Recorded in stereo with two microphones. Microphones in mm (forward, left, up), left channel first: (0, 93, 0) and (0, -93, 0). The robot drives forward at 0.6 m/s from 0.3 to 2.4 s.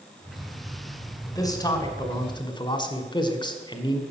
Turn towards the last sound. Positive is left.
turn(degrees=25)  # may be behind; listen again after turning